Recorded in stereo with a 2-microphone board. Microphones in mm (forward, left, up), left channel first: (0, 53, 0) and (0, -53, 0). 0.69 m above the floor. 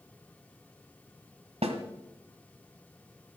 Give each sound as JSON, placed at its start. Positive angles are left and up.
{"t": 1.6, "sound": "a snare drum", "side_deg": -85, "distance_m": 1.6}